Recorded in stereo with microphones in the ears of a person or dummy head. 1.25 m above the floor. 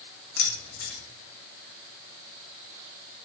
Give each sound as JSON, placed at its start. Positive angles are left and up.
{"t": 0.4, "sound": "keys jangling", "side_deg": 60, "distance_m": 1.0}